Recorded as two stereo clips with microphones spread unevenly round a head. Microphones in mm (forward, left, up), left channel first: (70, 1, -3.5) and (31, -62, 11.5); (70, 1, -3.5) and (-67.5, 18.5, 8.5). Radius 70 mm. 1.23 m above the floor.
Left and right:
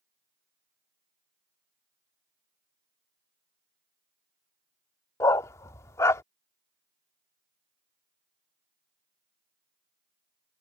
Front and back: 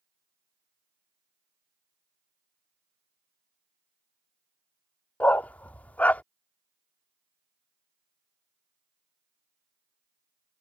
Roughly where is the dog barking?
Left.